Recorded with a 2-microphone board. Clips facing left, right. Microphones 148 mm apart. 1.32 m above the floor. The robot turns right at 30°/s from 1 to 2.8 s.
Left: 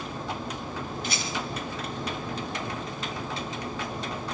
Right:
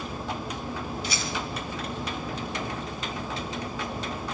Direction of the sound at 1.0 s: 50° left (ahead or behind).